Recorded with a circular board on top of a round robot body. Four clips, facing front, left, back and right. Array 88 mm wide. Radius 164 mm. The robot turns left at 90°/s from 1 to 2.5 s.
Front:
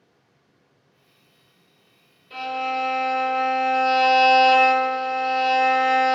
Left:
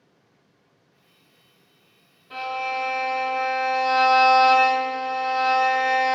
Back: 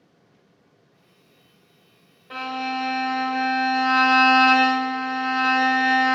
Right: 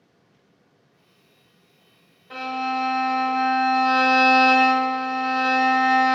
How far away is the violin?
About 1.3 m.